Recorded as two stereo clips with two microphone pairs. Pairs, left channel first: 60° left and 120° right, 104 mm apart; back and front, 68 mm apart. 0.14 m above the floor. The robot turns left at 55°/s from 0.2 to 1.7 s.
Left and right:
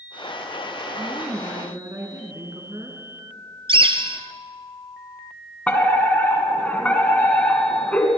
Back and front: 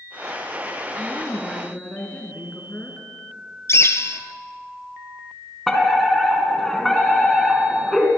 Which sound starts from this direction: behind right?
A bird, at 3.7 s.